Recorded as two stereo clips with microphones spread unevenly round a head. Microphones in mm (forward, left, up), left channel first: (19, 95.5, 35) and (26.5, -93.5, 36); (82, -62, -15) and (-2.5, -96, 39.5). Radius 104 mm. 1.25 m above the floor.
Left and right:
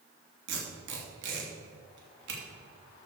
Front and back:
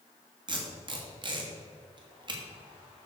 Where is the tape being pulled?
120° right, 3 m.